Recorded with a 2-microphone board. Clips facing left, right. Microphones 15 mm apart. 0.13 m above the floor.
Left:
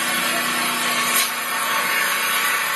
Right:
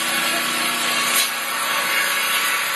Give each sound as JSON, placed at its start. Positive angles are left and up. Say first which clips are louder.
{"t": 0.0, "sound": "an engine running", "louder": "even", "side_deg": -15, "distance_m": 1.2}